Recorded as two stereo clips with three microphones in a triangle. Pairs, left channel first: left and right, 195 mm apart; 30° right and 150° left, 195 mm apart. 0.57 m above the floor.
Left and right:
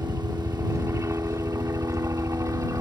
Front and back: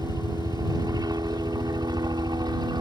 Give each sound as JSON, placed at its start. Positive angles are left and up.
{"t": 0.0, "sound": "a helicopter", "azimuth_deg": -155}